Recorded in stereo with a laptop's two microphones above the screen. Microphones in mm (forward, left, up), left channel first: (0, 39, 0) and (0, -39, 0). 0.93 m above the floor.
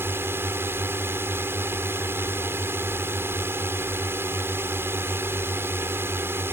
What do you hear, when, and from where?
0.0 s a drone: 30° right (ahead or behind)